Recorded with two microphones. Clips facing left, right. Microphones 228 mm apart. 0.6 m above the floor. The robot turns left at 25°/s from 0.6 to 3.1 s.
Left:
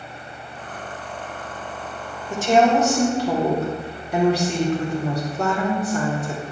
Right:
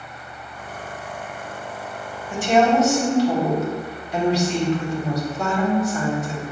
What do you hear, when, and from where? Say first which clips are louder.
2.3 s a woman speaking: even; 40° left (ahead or behind), 1.7 m; by 6.4 s 55° left (ahead or behind), 1.7 m